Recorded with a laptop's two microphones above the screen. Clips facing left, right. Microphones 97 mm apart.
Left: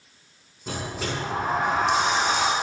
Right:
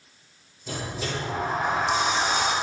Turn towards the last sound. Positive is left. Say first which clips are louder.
# left 1 dB
turn(degrees=70)  # may be behind; listen again after turning